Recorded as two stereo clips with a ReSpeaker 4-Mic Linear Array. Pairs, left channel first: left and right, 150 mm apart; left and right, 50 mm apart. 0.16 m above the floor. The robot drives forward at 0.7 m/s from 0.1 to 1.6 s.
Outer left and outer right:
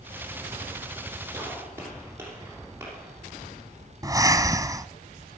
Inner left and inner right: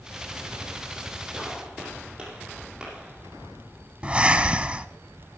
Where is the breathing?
25° right (ahead or behind), 0.7 m.